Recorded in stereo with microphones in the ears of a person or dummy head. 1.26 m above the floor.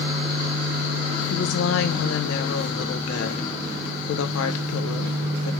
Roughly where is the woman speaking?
Left.